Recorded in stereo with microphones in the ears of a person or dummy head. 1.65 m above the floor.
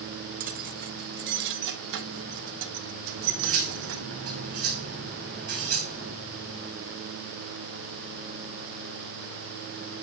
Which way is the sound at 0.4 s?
45° right (ahead or behind).